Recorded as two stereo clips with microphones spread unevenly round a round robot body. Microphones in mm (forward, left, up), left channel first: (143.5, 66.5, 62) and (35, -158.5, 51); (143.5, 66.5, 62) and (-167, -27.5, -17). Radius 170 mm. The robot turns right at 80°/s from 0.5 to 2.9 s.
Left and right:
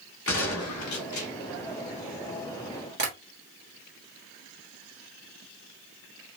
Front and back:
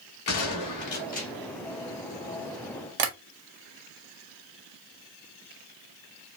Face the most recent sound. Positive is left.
turn(degrees=-170)